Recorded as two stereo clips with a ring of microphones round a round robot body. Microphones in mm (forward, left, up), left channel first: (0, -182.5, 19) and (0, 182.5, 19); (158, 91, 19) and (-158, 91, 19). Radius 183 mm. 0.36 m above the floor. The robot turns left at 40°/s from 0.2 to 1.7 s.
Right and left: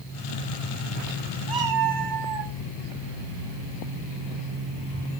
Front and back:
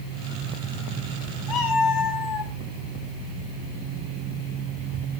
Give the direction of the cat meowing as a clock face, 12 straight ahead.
12 o'clock.